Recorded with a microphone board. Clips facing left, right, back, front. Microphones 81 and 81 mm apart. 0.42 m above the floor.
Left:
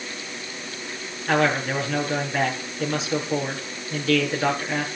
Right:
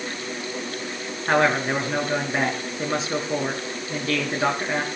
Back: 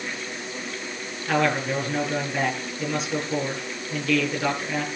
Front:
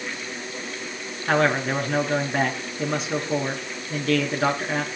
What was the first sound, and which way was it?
A man speaking, 35° right.